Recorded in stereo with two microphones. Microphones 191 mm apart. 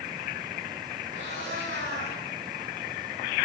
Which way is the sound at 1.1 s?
80° right.